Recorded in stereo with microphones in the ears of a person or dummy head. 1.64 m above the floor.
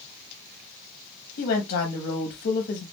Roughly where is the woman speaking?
Left.